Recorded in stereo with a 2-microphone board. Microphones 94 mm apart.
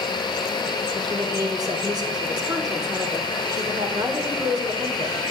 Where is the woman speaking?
40° right (ahead or behind), 2.0 m.